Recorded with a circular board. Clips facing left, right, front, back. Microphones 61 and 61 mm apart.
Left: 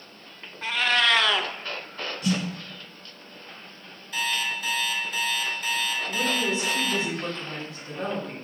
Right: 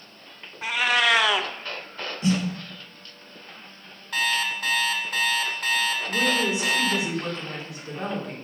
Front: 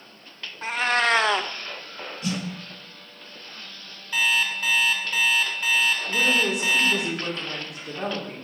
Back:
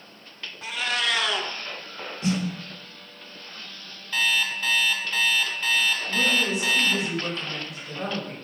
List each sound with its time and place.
0.6 s a cat meowing: 15° right, 0.5 m
2.2 s a snare drum: 135° right, 1.3 m
4.1 s an alarm clock: 75° right, 1.7 m
6.1 s a woman speaking: 15° right, 3 m